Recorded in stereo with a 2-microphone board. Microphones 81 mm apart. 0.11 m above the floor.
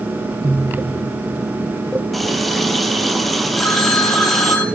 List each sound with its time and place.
2.1 s a running tap: centre (ahead or behind), 1.7 m
3.6 s a phone ringing: 15° left (ahead or behind), 5.5 m